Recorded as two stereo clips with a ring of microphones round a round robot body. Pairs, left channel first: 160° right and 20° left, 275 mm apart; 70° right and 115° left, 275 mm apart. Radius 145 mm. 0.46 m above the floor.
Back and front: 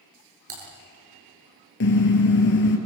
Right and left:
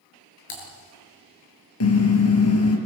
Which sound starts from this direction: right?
A car horn, at 1.8 s.